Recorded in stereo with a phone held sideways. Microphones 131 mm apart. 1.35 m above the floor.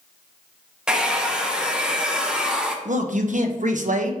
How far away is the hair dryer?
About 0.7 m.